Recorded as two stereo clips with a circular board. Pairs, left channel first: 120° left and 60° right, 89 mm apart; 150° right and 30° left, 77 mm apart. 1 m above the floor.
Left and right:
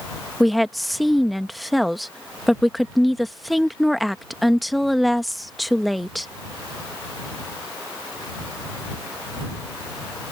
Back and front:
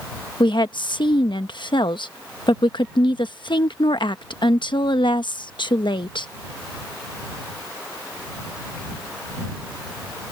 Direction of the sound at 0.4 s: 150° right.